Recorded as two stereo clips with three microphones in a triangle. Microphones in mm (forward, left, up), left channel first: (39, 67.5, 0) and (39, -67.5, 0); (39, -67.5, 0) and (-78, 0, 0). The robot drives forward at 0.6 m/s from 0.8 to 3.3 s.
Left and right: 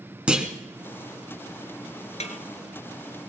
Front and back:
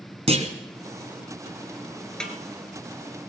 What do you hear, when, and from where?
0.3 s a clunk: 170° right, 2 m
2.2 s a snare drum: 55° left, 1.7 m